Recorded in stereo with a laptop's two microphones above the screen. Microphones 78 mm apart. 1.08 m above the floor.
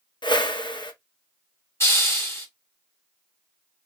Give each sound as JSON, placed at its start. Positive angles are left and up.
{"t": 0.2, "sound": "a whoosh", "side_deg": 75, "distance_m": 0.7}
{"t": 1.8, "sound": "a hiss", "side_deg": 35, "distance_m": 1.1}